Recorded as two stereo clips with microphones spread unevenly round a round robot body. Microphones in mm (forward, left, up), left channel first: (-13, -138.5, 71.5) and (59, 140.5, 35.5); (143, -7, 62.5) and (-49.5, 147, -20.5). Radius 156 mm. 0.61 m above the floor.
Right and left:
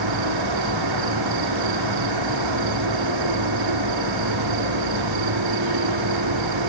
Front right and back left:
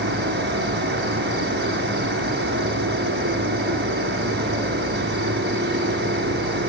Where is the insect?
85° left, 1.8 m.